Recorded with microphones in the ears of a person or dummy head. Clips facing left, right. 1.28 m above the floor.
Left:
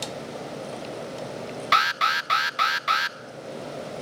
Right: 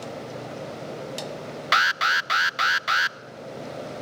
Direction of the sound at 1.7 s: 5° right (ahead or behind).